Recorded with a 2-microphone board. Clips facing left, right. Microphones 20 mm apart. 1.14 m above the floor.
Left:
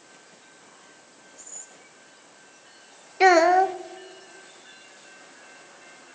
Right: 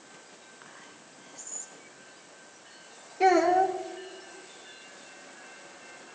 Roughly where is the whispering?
Right.